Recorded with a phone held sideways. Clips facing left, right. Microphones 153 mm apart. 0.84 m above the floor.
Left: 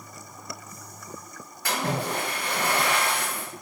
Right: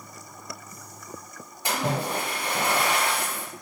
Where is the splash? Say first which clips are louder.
Right 1 dB; 15° right (ahead or behind), 1.7 m.